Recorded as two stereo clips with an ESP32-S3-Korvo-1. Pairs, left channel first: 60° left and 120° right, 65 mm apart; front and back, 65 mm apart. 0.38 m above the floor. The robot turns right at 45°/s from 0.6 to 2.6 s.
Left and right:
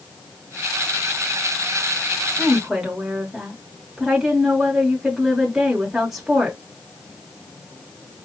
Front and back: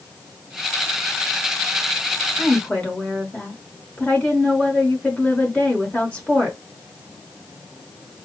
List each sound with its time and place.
2.4 s a woman speaking: 60° right, 1.1 m; by 6.6 s 50° right, 1.1 m